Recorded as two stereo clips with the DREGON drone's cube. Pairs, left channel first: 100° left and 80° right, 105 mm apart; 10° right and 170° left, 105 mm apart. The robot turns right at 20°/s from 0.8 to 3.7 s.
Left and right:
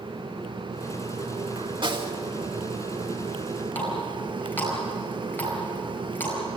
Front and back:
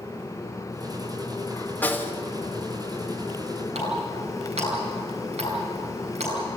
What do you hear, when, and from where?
1.8 s a snare drum: 80° right, 1.7 m; by 2.2 s 75° right, 1.7 m
3.8 s a running tap: 175° left, 8 m